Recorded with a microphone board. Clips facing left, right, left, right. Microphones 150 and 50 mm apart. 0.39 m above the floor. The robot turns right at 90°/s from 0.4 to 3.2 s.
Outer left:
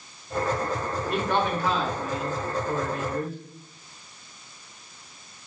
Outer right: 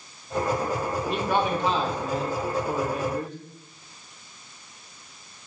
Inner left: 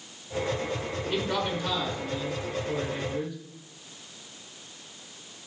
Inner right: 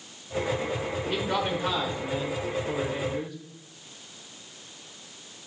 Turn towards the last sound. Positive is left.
turn(degrees=5)